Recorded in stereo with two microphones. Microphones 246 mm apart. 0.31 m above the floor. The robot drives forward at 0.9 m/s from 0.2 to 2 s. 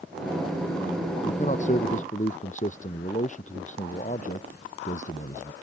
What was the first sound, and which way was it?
A man speaking, 30° left (ahead or behind).